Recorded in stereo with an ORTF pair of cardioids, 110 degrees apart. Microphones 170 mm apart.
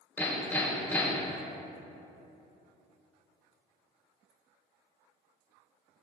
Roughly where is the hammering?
Ahead.